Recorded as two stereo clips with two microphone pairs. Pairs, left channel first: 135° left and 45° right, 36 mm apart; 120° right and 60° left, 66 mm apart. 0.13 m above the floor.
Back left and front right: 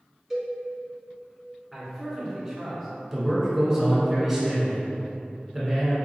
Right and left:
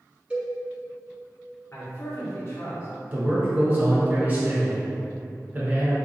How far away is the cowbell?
About 1.1 m.